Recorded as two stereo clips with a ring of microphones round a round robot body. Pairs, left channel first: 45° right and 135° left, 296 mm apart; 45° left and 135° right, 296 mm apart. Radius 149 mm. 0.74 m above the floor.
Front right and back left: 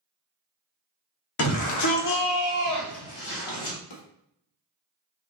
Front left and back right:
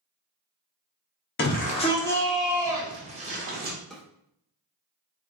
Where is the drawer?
45° right, 1.0 m.